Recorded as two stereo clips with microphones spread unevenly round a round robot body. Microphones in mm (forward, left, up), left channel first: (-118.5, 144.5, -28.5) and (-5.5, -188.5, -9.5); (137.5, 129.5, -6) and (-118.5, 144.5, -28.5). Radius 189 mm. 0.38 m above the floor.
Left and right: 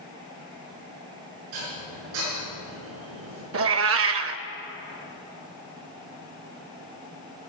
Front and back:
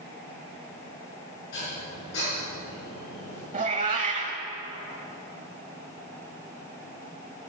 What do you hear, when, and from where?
1.5 s dishes clattering: 55° right, 3.5 m
3.5 s a cat meowing: 120° right, 0.7 m